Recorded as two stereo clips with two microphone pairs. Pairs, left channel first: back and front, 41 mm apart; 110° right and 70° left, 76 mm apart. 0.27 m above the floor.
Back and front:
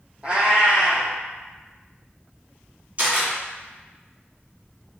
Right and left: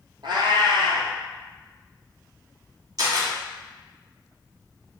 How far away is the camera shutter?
About 1.2 m.